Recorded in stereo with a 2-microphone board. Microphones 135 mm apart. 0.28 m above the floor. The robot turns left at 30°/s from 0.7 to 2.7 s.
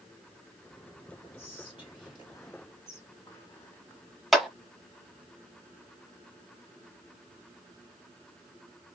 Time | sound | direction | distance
1.4 | whispering | 45° left (ahead or behind) | 1.7 m
4.3 | a clap | centre (ahead or behind) | 0.9 m